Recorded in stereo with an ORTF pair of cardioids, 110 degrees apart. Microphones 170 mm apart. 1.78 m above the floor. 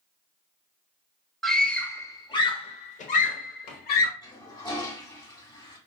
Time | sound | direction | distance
1.4 | a scream | straight ahead | 1.2 m
4.2 | a toilet flushing | 25° left | 3 m